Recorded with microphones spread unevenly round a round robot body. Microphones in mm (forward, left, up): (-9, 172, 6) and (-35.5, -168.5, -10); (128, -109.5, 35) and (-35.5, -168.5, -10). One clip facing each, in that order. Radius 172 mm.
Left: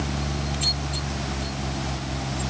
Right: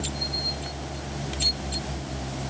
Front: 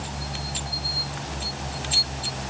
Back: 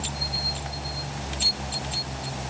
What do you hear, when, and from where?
Only background noise.